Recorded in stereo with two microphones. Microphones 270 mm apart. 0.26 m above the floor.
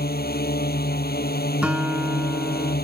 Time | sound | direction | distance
0.0 | a drone | 35° left (ahead or behind) | ?
1.6 | a guitar | 5° right (ahead or behind) | ?